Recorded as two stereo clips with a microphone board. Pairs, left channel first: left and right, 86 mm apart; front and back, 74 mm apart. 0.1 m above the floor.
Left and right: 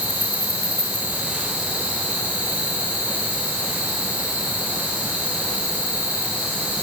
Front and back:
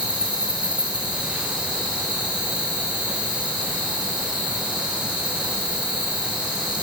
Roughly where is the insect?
Behind right.